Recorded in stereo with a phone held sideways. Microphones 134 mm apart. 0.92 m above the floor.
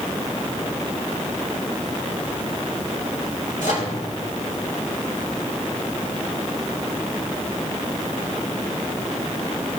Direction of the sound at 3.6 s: 80° left.